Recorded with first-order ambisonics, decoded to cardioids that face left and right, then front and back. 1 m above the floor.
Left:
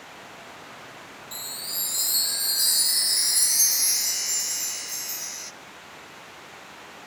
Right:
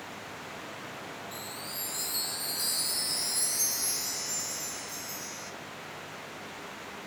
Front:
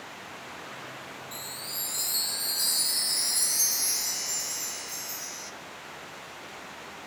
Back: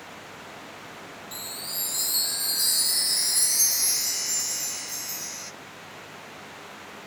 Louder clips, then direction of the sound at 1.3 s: Left 5 dB, back 4 dB; 110° left.